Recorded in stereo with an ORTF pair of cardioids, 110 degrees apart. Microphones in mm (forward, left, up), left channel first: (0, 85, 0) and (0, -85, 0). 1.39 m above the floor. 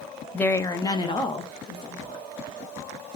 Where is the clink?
I don't hear a clink.